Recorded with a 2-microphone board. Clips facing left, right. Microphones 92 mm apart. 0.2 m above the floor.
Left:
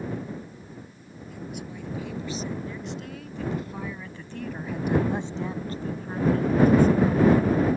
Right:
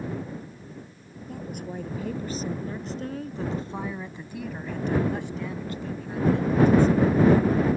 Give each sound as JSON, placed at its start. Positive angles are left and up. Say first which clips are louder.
{"t": 1.3, "sound": "a woman speaking", "louder": "right 3 dB", "side_deg": -45}